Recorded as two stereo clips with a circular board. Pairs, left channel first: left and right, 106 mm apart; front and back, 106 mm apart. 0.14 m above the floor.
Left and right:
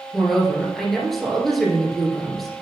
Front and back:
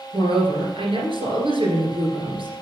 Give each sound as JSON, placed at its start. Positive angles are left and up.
{"t": 0.1, "sound": "a woman speaking", "azimuth_deg": 175, "distance_m": 2.0}